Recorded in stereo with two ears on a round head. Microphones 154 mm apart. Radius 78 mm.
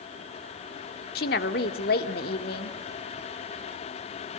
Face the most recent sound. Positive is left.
turn(degrees=55)  # may be behind; listen again after turning